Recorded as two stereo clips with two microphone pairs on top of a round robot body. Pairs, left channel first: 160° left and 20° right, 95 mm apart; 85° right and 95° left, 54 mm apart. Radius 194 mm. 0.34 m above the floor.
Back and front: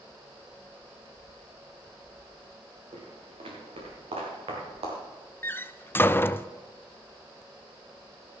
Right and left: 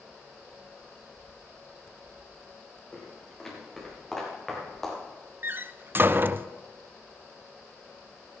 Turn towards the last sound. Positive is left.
turn(degrees=125)